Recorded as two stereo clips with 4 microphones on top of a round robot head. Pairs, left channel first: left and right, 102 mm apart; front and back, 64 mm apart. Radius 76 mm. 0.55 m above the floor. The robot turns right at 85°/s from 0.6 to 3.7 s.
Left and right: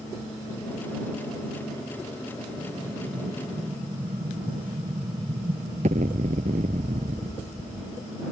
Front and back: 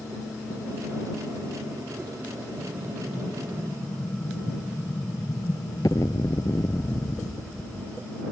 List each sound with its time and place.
2.6 s an explosion: 155° right; by 8.1 s 60° right